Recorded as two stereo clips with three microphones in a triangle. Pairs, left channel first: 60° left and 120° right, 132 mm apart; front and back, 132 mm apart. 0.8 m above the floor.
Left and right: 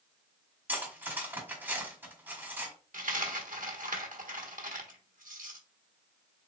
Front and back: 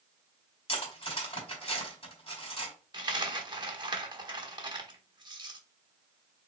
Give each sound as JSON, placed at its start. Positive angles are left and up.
{"t": 0.7, "sound": "cutlery clinking", "azimuth_deg": -45, "distance_m": 1.8}
{"t": 2.9, "sound": "a dropped coin", "azimuth_deg": -125, "distance_m": 1.0}